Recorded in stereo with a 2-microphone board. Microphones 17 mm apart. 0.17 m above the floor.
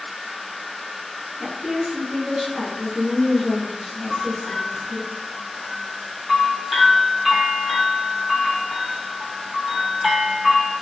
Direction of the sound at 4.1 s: 15° right (ahead or behind).